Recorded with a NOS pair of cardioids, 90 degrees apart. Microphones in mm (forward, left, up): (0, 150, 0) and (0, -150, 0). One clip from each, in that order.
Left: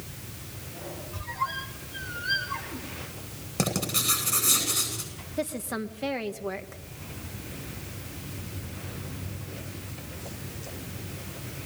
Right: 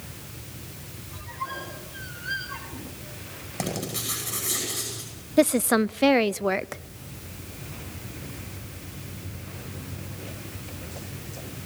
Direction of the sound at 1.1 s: 20° left.